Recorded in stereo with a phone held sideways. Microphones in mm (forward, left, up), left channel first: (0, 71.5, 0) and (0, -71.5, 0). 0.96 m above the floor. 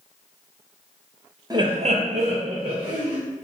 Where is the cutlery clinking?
No cutlery clinking in this recording.